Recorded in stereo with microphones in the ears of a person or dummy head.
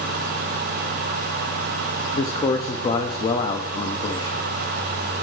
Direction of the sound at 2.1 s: 25° left (ahead or behind).